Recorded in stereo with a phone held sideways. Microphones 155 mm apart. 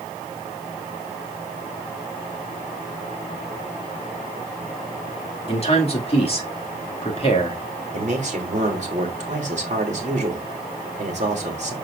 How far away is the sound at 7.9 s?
About 2.5 m.